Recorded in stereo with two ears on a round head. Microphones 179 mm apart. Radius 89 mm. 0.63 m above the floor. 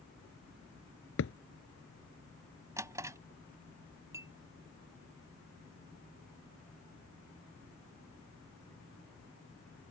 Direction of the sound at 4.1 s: 15° right (ahead or behind).